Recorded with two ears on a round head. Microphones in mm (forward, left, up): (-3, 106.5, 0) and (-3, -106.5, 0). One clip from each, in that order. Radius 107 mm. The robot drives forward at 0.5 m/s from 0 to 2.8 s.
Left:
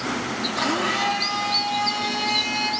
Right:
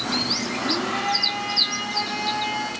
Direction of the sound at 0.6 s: 60° left (ahead or behind).